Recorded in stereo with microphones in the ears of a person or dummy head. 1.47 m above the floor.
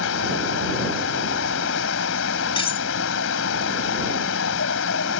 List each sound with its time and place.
0.0 s a fan: 70° left (ahead or behind)
2.6 s cutlery clinking: 25° left (ahead or behind)